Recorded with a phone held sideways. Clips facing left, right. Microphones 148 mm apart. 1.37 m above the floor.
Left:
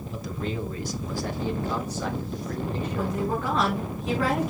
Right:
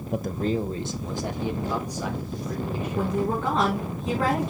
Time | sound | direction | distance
0.1 | a man speaking | 60° right (ahead or behind) | 0.6 m
3.0 | a woman speaking | 25° right (ahead or behind) | 5 m